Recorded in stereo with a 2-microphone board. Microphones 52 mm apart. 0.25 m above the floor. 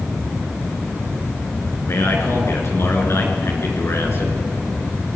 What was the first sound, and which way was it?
A man speaking, 55° left (ahead or behind).